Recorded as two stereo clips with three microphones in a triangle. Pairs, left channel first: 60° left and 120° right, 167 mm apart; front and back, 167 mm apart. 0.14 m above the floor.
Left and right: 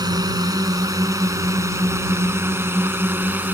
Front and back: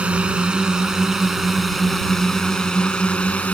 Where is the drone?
110° right; by 3.5 s 65° right.